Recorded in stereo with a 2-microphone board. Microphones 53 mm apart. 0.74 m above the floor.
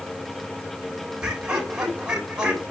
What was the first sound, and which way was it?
Laughter, 15° right (ahead or behind).